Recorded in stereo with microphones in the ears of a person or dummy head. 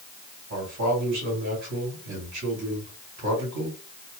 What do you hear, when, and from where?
0.5 s a man speaking: 60° right (ahead or behind), 1.9 m